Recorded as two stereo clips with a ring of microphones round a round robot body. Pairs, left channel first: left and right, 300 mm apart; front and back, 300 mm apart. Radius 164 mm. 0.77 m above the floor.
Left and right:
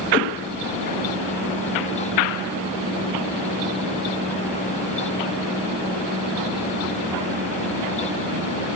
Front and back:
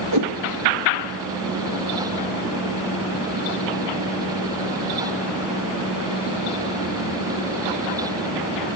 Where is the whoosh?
150° left, 2.5 m.